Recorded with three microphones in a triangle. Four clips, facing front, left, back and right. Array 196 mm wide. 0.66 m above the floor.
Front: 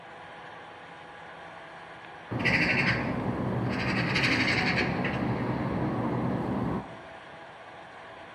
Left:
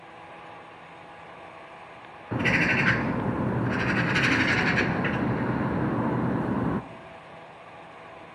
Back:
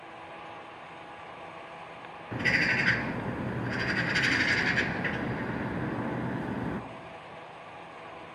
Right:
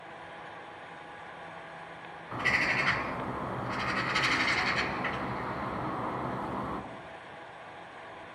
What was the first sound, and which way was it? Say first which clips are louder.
A bird: left 6 dB, front 1 dB; 80° left.